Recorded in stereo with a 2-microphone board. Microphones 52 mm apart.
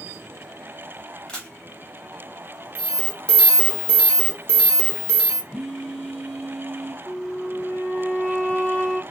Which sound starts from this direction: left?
A flute, at 7.0 s.